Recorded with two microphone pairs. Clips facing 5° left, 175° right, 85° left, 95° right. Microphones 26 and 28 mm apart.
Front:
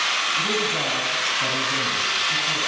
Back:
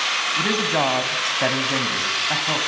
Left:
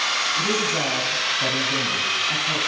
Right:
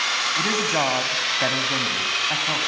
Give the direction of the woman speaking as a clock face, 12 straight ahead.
5 o'clock.